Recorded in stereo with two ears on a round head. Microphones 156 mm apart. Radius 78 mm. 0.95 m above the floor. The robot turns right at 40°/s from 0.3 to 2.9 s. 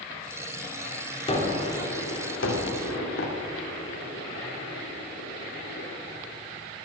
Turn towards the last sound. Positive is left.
turn(degrees=85)